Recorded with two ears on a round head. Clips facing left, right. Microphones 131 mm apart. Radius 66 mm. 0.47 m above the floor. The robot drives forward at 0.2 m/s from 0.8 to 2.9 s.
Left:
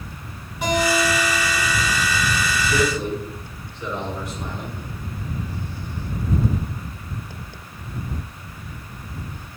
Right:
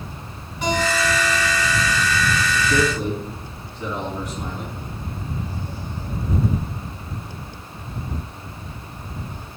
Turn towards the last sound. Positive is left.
turn(degrees=-40)  # may be behind; listen again after turning